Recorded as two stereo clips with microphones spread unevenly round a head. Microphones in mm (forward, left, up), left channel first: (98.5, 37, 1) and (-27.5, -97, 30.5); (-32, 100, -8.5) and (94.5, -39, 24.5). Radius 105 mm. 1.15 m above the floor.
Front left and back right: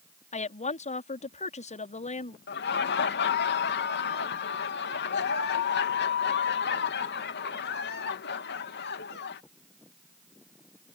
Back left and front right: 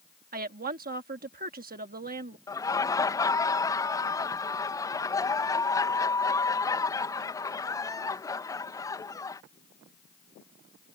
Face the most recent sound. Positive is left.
turn(degrees=65)